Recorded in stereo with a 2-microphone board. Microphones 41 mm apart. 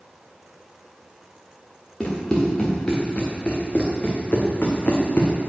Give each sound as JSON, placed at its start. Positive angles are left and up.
{"t": 2.0, "sound": "running footsteps", "side_deg": 20, "distance_m": 3.0}